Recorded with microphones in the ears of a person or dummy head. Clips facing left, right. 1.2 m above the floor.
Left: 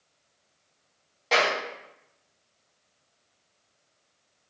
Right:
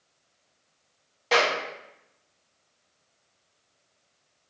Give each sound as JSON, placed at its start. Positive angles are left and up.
{"t": 1.3, "sound": "a clap", "side_deg": 0, "distance_m": 1.7}